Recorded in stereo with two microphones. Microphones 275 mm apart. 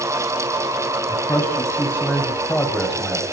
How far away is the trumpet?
I don't hear a trumpet.